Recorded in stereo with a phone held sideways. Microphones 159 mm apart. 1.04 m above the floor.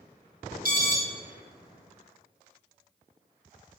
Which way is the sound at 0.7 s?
65° right (ahead or behind).